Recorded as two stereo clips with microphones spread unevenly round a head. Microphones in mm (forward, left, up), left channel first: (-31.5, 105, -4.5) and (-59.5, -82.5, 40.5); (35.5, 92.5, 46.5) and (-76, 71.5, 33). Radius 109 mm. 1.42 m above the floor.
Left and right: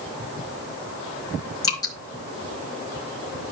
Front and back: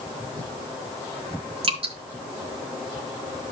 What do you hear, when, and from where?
1.6 s dripping: 155° left, 4 m